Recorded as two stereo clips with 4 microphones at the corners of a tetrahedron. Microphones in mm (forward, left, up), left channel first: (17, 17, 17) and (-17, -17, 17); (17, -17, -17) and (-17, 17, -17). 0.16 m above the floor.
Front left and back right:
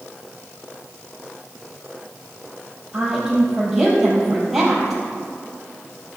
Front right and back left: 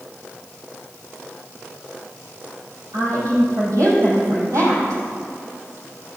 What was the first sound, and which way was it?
A woman speaking, 140° left.